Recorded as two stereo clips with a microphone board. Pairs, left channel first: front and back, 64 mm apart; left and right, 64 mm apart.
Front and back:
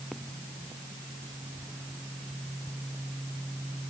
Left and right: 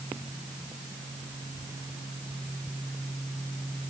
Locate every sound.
Only background noise.